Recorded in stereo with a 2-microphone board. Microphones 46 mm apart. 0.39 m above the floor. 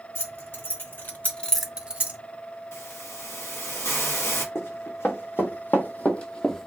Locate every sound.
0.1 s keys jangling: 55° left (ahead or behind), 1.5 m; by 2.2 s 35° right (ahead or behind), 0.8 m
2.7 s a hiss: 80° left, 0.9 m
4.5 s running footsteps: 65° left (ahead or behind), 1.2 m; by 6.7 s 5° left (ahead or behind), 0.6 m